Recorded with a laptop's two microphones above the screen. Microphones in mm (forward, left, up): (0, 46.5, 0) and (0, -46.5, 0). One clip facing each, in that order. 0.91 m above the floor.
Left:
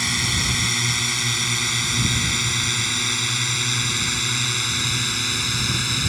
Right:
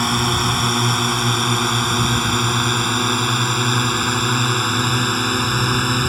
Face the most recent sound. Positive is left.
turn(degrees=-50)  # may be behind; listen again after turning